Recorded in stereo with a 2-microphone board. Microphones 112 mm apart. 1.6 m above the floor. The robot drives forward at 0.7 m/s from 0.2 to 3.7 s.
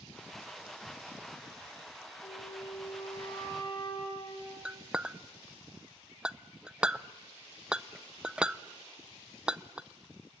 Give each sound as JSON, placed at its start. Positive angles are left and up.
{"t": 2.2, "sound": "a flute", "side_deg": 55, "distance_m": 3.5}
{"t": 4.7, "sound": "a clink", "side_deg": -5, "distance_m": 0.6}